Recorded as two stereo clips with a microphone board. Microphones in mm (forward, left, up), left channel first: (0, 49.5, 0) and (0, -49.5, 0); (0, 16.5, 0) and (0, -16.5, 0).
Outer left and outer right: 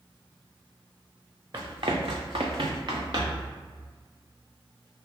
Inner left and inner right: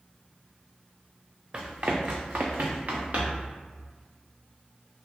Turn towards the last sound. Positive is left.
turn(degrees=-45)  # may be behind; listen again after turning